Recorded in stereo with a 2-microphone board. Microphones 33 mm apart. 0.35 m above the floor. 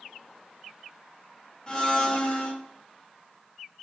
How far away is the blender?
About 0.9 m.